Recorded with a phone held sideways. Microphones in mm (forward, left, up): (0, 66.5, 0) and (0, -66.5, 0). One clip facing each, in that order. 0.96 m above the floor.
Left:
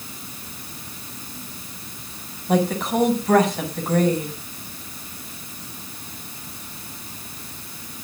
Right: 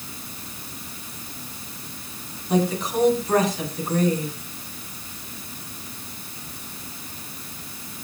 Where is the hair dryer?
No hair dryer in this recording.